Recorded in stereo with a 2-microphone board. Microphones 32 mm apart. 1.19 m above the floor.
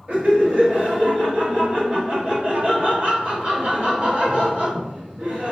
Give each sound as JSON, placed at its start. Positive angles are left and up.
{"t": 0.1, "sound": "laughter", "side_deg": -55, "distance_m": 1.8}